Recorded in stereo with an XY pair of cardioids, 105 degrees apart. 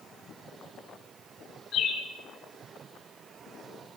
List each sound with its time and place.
1.7 s a bird: 65° left, 5 m